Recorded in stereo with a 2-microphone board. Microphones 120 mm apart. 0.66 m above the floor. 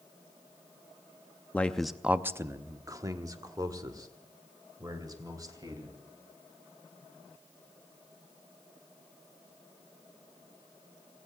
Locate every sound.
1.5 s a man speaking: 15° left (ahead or behind), 0.5 m; by 6.0 s 30° right (ahead or behind), 3 m